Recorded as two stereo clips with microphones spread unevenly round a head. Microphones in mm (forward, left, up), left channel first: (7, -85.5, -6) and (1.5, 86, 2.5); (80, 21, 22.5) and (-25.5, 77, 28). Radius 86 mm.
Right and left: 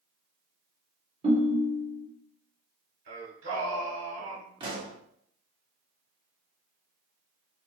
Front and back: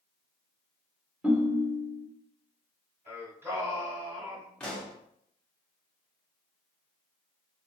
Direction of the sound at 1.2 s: 85° left.